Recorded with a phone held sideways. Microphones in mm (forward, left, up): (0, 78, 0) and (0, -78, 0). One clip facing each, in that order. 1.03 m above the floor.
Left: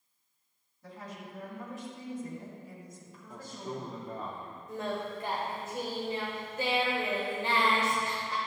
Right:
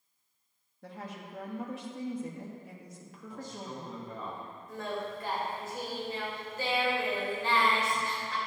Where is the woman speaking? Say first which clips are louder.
Right 1 dB; 70° right (ahead or behind), 1.4 m.